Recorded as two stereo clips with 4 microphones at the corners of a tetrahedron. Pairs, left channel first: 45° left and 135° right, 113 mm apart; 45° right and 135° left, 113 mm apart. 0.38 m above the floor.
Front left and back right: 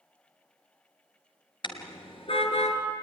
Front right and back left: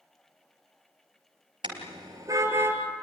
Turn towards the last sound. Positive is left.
turn(degrees=65)